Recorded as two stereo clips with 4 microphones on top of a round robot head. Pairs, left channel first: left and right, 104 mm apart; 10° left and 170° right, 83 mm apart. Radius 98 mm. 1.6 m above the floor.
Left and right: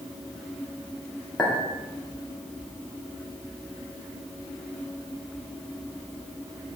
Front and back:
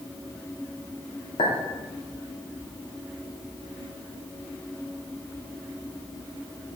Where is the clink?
10° left, 2 m.